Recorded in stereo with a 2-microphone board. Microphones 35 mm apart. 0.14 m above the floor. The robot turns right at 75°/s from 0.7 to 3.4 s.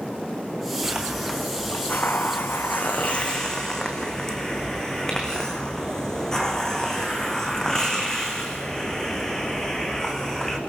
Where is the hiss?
30° right, 3 m; by 10.6 s 165° left, 3 m.